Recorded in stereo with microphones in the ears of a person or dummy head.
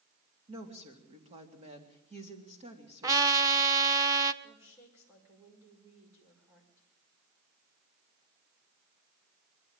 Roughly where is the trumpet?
Right.